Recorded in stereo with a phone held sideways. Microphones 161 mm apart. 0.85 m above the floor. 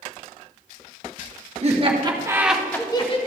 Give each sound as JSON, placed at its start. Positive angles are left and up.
{"t": 1.6, "sound": "laughter", "side_deg": -45, "distance_m": 1.9}